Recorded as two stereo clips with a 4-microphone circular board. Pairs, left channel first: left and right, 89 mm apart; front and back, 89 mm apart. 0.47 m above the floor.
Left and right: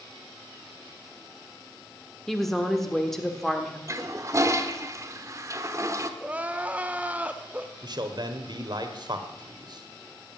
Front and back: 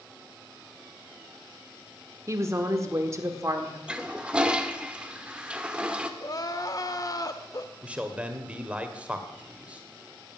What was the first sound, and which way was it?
A woman speaking, 175° left.